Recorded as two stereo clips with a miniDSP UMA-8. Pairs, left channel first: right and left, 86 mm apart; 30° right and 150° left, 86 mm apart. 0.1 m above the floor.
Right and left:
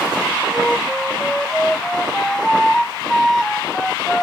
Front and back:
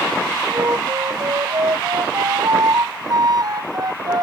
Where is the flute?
175° right.